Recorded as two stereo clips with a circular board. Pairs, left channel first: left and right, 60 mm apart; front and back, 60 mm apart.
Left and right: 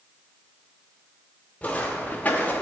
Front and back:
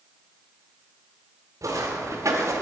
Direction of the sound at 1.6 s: 160° left.